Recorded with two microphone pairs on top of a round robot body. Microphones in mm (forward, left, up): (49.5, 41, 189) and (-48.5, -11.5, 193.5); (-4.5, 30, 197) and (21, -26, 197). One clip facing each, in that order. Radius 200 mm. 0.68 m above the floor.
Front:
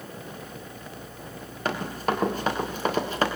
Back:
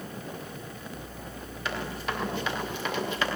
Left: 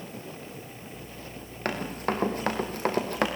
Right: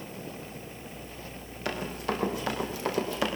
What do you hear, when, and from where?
1.6 s running footsteps: 75° left, 6.5 m; by 3.3 s 80° left, 5 m